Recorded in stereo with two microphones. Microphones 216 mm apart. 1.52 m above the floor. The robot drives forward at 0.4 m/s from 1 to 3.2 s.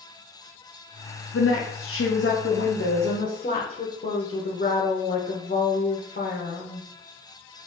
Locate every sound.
1.3 s a woman speaking: 80° left, 0.7 m; by 6.8 s 45° left (ahead or behind), 0.9 m